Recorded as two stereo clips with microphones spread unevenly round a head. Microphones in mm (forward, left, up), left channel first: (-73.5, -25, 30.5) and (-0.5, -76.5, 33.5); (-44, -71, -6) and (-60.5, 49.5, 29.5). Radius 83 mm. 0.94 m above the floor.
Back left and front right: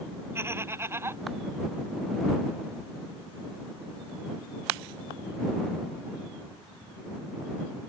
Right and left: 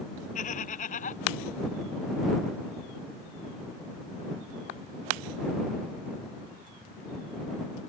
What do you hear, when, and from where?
0.3 s laughter: 100° right